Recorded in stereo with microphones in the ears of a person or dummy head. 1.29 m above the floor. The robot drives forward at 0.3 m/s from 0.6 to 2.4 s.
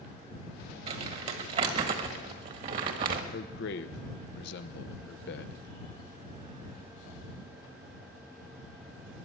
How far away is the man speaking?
About 0.9 m.